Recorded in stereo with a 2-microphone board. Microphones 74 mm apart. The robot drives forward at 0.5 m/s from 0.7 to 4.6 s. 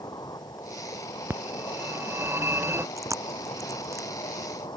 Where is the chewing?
45° right (ahead or behind); by 4.1 s 40° right (ahead or behind).